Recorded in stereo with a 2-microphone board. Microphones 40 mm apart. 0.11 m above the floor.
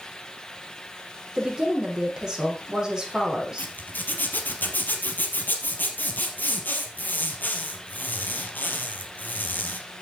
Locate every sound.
1.4 s a woman speaking: 20° right (ahead or behind), 6 m
3.6 s a zipper: 50° left (ahead or behind), 2.5 m